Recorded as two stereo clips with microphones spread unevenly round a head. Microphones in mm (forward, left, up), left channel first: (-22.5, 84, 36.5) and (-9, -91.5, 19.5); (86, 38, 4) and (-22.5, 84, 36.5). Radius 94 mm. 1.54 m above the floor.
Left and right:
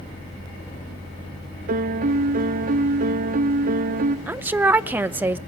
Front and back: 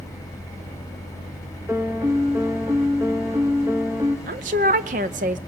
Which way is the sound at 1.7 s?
125° right.